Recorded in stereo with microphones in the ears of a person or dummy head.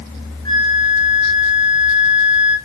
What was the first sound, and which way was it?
A flute, 20° left (ahead or behind).